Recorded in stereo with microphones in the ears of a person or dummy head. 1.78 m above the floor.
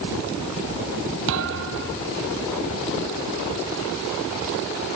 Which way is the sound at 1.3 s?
70° right (ahead or behind).